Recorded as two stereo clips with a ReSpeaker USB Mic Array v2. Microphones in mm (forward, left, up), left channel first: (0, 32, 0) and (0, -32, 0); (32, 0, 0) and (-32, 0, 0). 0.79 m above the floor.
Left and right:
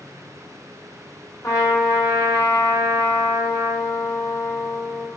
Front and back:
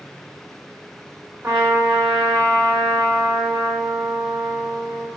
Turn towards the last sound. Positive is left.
turn(degrees=125)